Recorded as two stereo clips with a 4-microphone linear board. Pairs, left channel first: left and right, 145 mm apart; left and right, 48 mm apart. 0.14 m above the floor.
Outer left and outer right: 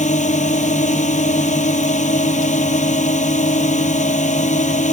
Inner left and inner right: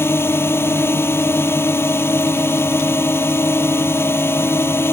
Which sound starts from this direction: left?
A drone, at 0.0 s.